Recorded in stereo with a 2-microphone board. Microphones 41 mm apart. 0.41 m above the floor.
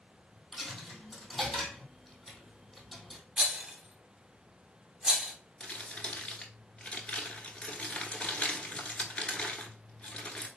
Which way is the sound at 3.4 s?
30° right (ahead or behind).